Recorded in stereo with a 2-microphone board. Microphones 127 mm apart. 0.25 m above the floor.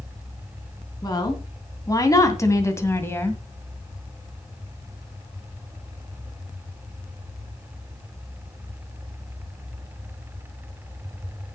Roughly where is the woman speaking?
Left.